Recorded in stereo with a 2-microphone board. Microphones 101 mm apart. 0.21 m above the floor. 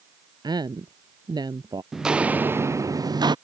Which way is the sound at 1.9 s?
5° right (ahead or behind).